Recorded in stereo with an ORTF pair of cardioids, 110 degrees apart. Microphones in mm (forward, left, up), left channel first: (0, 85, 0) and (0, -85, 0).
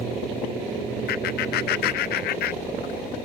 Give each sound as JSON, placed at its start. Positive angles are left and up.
{"t": 1.1, "sound": "laughter", "azimuth_deg": 70, "distance_m": 0.8}